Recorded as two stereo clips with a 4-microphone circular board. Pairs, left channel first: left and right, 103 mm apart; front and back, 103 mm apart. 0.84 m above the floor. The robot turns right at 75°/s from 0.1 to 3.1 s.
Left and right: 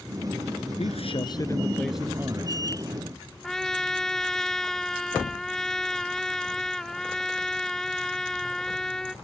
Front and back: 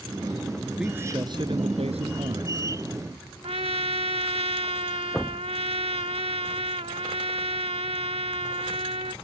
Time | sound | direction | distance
0.8 | a man speaking | 95° left | ?
3.4 | a trumpet | 175° left | ?